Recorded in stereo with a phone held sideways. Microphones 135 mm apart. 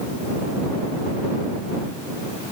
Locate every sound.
Only background noise.